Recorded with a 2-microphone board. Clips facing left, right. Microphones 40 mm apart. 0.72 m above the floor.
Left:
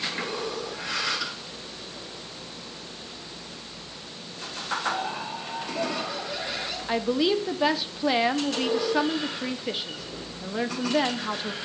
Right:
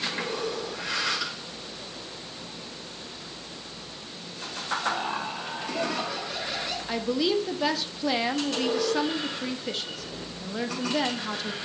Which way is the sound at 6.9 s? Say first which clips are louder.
Left 2 dB; 15° left (ahead or behind).